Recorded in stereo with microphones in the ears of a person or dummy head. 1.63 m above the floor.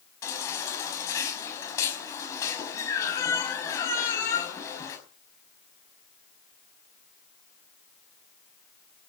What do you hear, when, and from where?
0.2 s a baby crying: 15° left (ahead or behind), 5.5 m